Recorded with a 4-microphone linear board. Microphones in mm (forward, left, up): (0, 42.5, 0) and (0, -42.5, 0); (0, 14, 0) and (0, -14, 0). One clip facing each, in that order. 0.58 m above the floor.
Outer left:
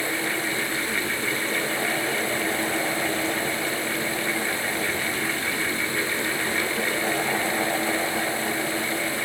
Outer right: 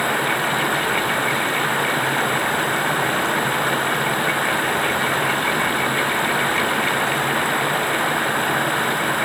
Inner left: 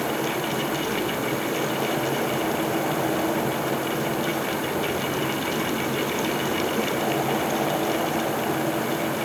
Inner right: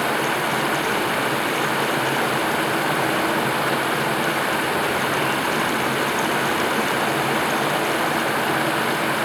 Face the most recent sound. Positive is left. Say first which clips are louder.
# outer right 7 dB, inner right 4 dB
turn(degrees=-55)  # may be behind; listen again after turning